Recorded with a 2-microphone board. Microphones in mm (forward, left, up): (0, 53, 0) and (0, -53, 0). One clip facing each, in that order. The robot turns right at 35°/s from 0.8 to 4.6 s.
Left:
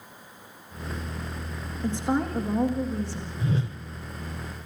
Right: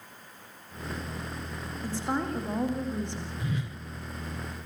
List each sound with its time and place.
1.8 s a woman speaking: 155° left, 6 m; by 3.3 s 150° right, 6 m
3.4 s a whoosh: 30° left (ahead or behind), 1.0 m